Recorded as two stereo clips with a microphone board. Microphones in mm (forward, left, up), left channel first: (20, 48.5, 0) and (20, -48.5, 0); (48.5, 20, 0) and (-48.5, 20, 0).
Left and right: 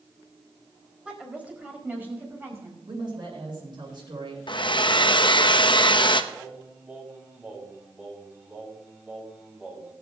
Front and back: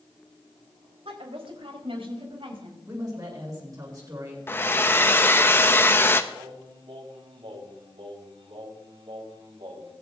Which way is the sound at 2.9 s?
130° right.